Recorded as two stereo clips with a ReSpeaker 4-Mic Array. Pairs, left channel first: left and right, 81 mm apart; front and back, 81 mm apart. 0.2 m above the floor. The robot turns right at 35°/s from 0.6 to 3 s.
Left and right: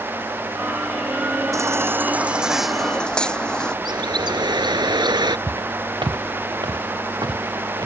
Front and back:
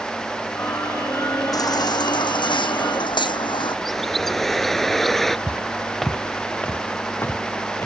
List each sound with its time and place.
1.5 s a baby crying: 40° right; by 3.8 s 10° left
3.9 s a bird: 90° right
5.5 s footsteps: 110° right; by 7.9 s 55° right